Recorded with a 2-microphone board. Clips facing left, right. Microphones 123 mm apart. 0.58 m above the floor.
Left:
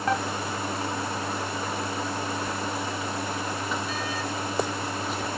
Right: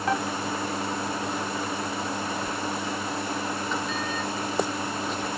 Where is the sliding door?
5° left (ahead or behind), 1.5 m.